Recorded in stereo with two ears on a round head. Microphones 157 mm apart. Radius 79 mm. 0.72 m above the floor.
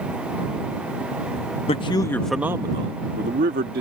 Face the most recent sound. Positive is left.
turn(degrees=-60)  # may be behind; listen again after turning